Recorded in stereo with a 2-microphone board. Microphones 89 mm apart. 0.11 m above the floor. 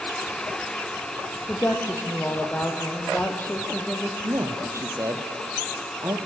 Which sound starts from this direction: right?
A man speaking, at 4.2 s.